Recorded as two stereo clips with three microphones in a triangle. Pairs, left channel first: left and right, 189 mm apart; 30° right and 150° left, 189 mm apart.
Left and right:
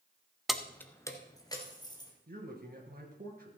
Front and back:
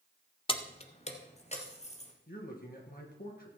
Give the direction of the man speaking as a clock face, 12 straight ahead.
2 o'clock.